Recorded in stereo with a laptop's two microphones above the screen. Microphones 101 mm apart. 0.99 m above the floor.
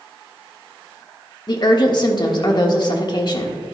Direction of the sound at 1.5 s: 50° left (ahead or behind).